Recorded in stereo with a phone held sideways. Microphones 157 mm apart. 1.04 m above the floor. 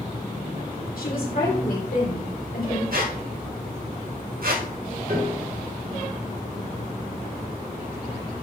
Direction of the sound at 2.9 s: 70° right (ahead or behind).